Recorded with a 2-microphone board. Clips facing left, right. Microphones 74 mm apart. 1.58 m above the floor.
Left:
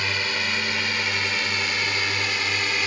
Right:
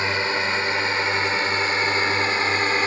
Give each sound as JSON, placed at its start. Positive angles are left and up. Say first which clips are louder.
{"t": 0.0, "sound": "a drone", "louder": "right 4 dB", "side_deg": -25}